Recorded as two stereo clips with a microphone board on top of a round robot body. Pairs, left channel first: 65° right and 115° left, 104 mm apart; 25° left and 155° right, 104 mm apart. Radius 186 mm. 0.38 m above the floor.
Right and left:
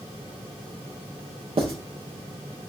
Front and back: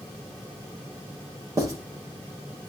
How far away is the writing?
About 4 m.